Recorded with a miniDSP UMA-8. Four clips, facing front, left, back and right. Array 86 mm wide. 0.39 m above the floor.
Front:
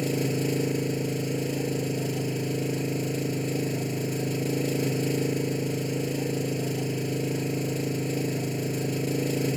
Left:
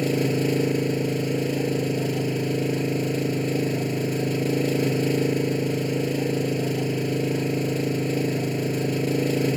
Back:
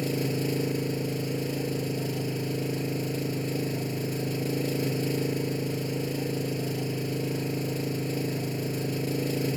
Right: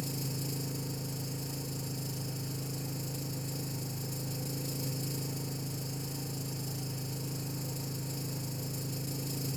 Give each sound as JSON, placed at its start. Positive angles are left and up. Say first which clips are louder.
{"t": 0.0, "sound": "an engine running", "louder": "left 17 dB, front 2 dB", "azimuth_deg": 85}